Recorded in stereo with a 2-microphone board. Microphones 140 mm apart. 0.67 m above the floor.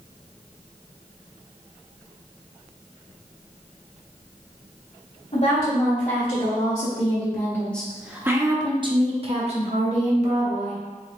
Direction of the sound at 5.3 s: 50° left (ahead or behind).